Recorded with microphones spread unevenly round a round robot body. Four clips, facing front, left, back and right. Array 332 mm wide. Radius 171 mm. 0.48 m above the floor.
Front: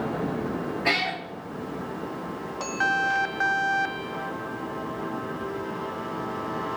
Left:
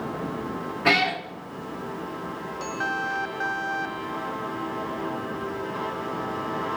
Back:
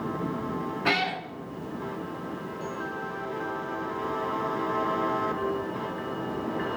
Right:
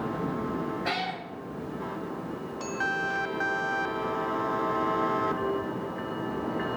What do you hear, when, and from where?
0.8 s a cat meowing: 100° left, 3.5 m